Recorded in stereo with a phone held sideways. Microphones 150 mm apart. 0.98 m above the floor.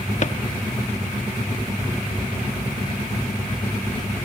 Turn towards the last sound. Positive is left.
turn(degrees=55)  # may be behind; listen again after turning